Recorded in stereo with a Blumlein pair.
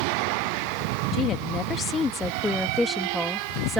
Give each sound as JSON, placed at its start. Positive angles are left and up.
{"t": 1.1, "sound": "a woman speaking", "azimuth_deg": 30}